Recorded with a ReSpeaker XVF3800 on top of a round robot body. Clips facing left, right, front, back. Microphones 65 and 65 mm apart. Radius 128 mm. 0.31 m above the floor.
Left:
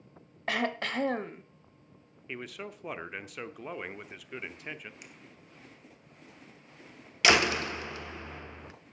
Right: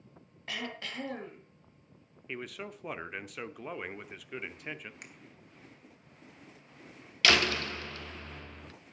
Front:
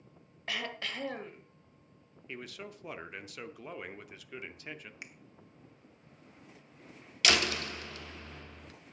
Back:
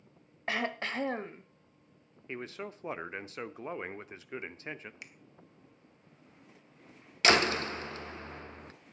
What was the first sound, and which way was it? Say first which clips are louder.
Throat clearing: left 9 dB, back 5 dB; 125° left.